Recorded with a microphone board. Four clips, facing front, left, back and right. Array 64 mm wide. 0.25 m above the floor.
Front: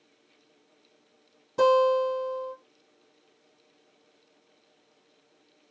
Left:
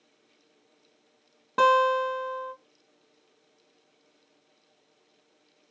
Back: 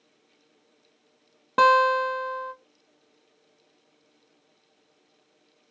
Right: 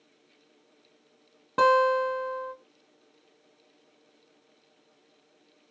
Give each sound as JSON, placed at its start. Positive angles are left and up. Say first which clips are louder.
{"t": 1.6, "sound": "a guitar", "louder": "even, back 2 dB", "azimuth_deg": 175, "distance_m": 0.9}